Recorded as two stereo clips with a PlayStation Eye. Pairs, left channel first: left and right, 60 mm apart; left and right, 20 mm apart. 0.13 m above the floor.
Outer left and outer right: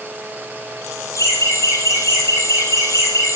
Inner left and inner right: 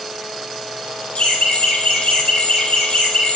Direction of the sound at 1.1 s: 60° left (ahead or behind).